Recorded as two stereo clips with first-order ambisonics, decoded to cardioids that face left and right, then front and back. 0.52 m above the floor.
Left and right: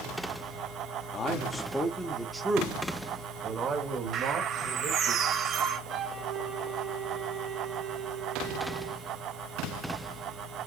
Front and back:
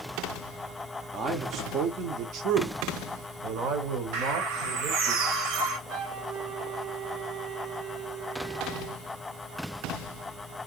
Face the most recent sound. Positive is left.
turn(degrees=-160)